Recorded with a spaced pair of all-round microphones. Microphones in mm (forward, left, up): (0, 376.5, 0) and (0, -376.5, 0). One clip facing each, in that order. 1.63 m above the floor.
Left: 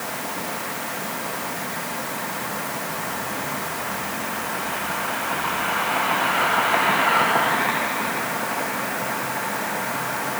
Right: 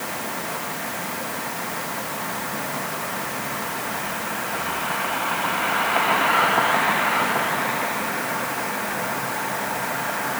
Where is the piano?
I don't hear a piano.